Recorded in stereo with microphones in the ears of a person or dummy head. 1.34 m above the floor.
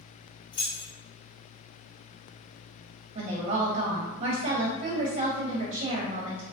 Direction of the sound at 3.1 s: 35° right (ahead or behind).